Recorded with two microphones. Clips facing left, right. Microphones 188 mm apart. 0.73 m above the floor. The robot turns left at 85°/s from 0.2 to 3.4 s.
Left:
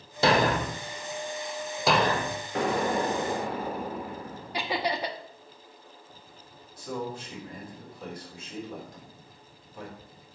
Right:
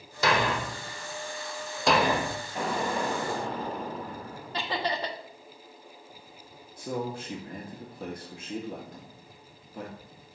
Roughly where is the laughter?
Centre.